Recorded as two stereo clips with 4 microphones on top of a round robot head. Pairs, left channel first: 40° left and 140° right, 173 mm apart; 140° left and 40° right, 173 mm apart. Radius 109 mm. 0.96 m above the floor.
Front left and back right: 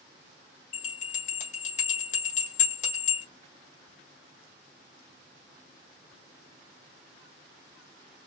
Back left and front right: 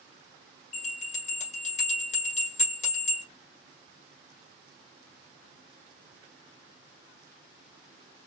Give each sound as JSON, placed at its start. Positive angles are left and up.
{"t": 0.7, "sound": "a bell", "azimuth_deg": 85, "distance_m": 1.5}